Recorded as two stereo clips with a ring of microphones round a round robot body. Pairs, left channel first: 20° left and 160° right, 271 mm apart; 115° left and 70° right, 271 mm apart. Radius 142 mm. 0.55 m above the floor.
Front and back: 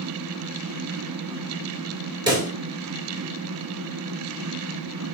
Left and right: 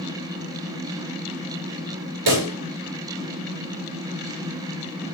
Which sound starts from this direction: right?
A pop, at 2.3 s.